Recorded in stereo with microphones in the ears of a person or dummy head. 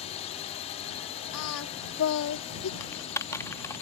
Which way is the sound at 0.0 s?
30° left (ahead or behind).